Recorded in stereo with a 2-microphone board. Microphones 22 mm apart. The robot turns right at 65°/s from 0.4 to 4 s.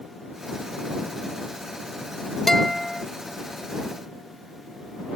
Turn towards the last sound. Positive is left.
turn(degrees=-120)